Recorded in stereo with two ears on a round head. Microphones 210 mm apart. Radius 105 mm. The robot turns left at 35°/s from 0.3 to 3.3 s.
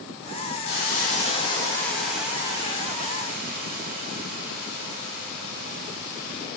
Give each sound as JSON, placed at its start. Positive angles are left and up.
{"t": 0.7, "sound": "a hiss", "azimuth_deg": 50, "distance_m": 0.6}